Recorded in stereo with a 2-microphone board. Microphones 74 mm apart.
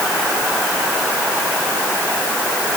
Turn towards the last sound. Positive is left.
No sound to turn to.